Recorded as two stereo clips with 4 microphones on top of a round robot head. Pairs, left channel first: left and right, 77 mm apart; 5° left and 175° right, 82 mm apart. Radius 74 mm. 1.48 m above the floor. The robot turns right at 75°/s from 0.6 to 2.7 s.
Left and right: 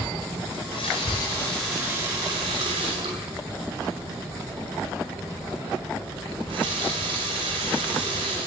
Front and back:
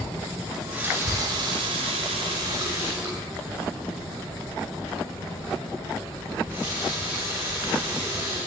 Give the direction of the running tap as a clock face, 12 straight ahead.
9 o'clock.